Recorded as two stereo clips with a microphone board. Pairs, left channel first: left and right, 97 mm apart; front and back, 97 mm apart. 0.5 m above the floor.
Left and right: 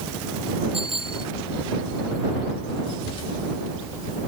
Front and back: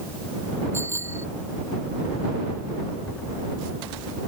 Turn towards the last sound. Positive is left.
turn(degrees=-115)